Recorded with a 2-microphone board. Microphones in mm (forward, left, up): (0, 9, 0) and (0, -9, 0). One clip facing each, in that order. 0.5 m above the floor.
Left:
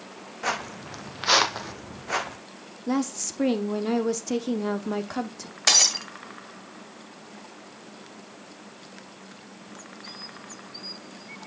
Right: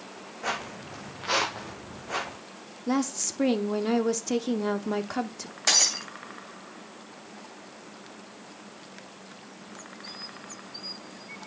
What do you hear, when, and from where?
0.4 s footsteps: 35° left (ahead or behind), 1.6 m
2.9 s a woman speaking: 15° right (ahead or behind), 0.8 m
5.7 s breaking glass: 30° left (ahead or behind), 2.0 m